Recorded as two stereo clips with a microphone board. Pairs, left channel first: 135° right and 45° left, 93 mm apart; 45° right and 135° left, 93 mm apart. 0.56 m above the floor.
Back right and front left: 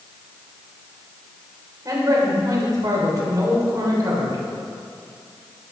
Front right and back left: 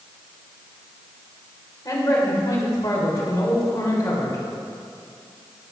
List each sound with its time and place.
1.9 s a man speaking: straight ahead, 2.5 m